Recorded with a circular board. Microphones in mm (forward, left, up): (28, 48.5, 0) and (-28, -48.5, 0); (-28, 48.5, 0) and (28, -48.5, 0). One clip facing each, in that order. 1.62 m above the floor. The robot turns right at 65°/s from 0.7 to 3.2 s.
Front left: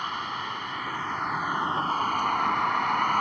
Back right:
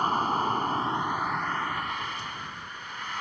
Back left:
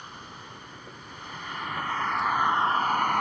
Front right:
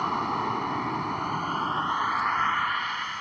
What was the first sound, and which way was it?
A vehicle, 70° right.